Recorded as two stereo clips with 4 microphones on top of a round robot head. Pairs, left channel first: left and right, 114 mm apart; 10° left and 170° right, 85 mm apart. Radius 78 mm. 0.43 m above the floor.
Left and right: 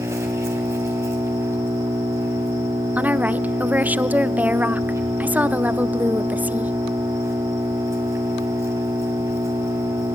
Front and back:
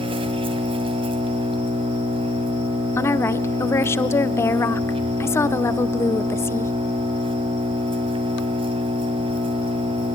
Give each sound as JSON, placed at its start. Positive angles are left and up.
{"t": 0.0, "sound": "an engine running", "azimuth_deg": -160, "distance_m": 2.0}
{"t": 3.0, "sound": "a woman speaking", "azimuth_deg": -25, "distance_m": 0.9}